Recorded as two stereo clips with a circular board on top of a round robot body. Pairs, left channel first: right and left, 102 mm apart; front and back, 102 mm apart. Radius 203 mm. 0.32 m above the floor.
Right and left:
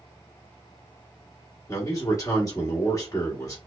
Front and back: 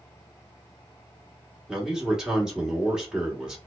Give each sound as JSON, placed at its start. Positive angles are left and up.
{"t": 1.7, "sound": "a man speaking", "azimuth_deg": -100, "distance_m": 1.6}